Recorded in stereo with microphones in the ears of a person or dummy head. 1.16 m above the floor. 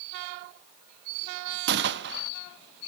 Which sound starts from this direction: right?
A gunshot, at 1.7 s.